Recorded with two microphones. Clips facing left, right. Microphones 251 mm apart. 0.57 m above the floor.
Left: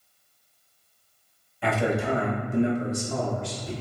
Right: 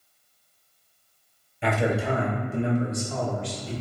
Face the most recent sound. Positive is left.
turn(degrees=55)  # may be behind; listen again after turning